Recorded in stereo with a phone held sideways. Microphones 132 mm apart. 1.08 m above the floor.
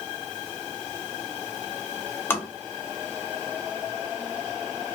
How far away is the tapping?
About 0.7 m.